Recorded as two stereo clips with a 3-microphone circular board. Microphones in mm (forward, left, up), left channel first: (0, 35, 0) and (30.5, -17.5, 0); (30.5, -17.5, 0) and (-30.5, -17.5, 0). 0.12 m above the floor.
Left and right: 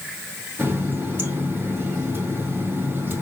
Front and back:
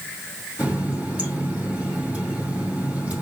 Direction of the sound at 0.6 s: 115° right.